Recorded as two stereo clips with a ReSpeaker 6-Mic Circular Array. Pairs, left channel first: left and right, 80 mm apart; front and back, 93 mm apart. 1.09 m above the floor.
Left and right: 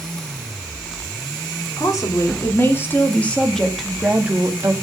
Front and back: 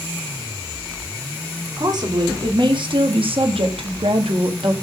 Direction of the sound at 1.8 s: 135° left.